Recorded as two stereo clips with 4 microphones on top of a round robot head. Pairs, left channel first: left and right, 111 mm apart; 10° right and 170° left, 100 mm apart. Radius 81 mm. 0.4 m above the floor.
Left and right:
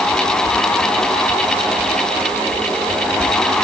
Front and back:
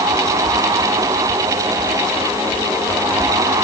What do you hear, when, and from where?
Only background noise.